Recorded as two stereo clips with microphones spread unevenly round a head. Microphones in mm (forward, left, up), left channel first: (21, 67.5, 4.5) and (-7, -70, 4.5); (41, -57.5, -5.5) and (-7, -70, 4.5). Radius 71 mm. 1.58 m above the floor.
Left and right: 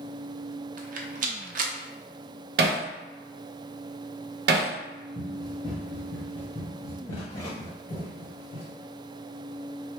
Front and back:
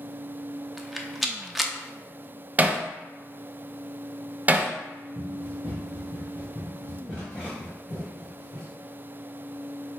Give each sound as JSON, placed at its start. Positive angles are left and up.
{"t": 0.8, "sound": "a rattle", "azimuth_deg": -70, "distance_m": 0.7}
{"t": 2.6, "sound": "hammering", "azimuth_deg": -115, "distance_m": 0.7}
{"t": 5.2, "sound": "running footsteps", "azimuth_deg": -5, "distance_m": 1.9}